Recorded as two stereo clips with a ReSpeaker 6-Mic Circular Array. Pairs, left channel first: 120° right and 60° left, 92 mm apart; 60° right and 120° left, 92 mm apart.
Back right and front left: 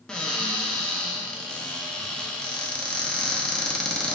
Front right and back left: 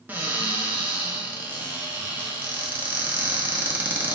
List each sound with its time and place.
0.1 s a cupboard door: 165° left, 0.6 m